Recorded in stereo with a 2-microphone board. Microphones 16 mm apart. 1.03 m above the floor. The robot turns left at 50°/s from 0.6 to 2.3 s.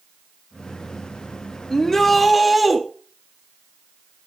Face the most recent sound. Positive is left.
turn(degrees=-5)  # may be behind; listen again after turning